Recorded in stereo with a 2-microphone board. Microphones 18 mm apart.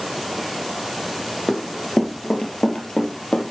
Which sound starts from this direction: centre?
Running footsteps, at 1.5 s.